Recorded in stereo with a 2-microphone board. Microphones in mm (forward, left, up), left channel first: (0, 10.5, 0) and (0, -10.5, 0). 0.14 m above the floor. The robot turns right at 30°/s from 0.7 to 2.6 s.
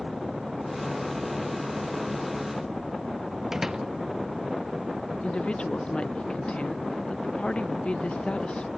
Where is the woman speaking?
60° left (ahead or behind).